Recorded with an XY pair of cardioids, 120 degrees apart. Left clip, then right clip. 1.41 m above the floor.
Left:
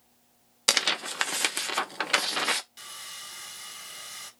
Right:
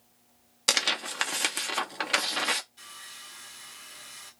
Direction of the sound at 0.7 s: 15° left.